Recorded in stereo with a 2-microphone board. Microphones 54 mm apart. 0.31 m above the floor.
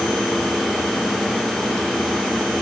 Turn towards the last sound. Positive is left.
No sound to turn to.